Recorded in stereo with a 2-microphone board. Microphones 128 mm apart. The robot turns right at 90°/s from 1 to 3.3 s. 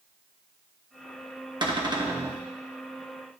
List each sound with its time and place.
1.6 s a cupboard door: 95° right, 0.8 m; by 2.4 s 25° right, 0.8 m